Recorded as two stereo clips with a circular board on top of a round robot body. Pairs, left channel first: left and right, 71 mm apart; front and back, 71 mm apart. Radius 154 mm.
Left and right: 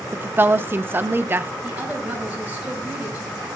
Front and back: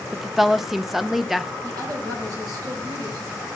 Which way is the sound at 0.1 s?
95° right.